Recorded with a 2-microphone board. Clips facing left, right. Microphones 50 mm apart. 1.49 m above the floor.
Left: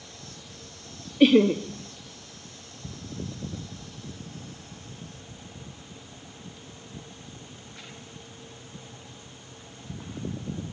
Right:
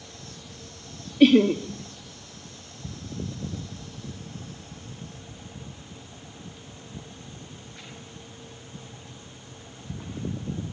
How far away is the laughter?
About 0.6 m.